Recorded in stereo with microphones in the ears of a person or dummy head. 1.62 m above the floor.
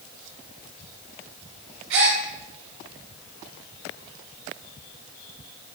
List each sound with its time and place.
1.9 s a gasp: 60° right (ahead or behind), 0.9 m